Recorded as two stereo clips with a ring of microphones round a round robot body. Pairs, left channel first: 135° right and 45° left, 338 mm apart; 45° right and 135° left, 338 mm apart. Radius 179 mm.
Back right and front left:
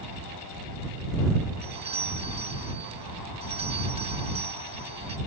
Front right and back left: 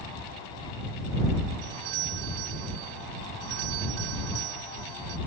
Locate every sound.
1.6 s a doorbell: 120° left